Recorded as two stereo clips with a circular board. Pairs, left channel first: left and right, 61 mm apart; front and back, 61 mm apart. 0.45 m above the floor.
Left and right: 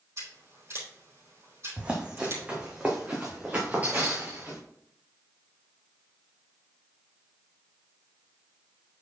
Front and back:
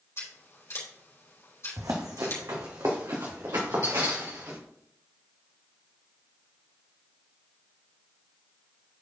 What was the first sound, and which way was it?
Scissors, 45° right.